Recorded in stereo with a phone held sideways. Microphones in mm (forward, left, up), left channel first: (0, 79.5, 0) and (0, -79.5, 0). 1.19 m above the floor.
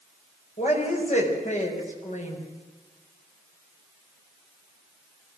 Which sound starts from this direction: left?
A woman speaking, at 0.6 s.